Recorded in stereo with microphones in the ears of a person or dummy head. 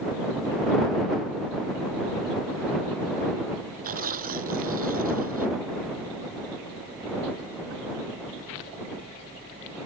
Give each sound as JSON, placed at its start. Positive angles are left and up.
{"t": 3.8, "sound": "tearing paper", "side_deg": -45}